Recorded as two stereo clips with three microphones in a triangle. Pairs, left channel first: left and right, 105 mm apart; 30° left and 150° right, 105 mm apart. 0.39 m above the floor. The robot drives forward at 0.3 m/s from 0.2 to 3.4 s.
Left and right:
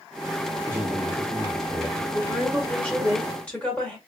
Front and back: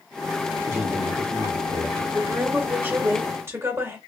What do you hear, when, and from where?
0.7 s a man speaking: 145° right, 1.8 m; by 2.0 s 155° right, 2.0 m
2.1 s a woman speaking: 155° left, 1.3 m; by 4.0 s 165° left, 1.5 m